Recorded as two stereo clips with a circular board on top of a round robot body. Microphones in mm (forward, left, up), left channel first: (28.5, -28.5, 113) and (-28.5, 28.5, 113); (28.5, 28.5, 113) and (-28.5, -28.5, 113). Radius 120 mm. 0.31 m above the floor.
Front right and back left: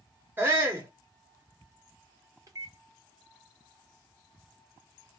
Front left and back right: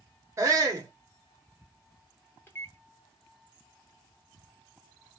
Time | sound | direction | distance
0.4 | a shout | 170° right | 1.2 m
2.5 | a microwave | 105° left | 1.5 m